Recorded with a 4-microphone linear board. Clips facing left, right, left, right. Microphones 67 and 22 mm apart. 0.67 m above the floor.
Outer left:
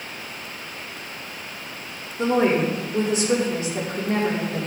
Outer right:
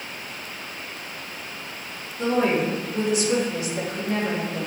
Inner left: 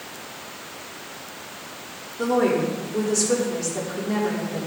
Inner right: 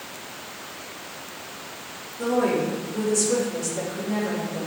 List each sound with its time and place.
2.2 s a woman speaking: 35° left (ahead or behind), 1.8 m